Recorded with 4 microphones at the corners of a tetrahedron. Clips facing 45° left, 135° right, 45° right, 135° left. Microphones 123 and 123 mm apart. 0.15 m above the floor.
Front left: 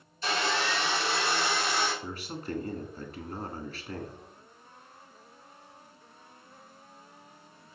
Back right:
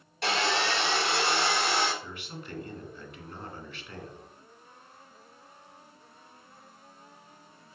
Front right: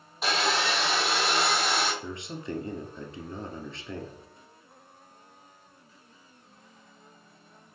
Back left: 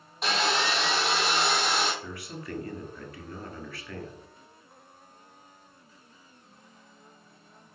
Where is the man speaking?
10° left, 1.7 m.